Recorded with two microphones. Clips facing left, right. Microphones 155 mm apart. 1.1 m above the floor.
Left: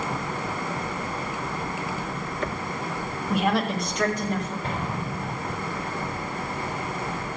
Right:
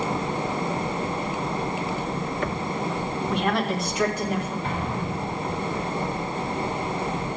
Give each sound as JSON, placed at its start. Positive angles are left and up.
{"t": 3.3, "sound": "a woman speaking", "side_deg": 10, "distance_m": 1.4}
{"t": 4.6, "sound": "an explosion", "side_deg": 40, "distance_m": 4.5}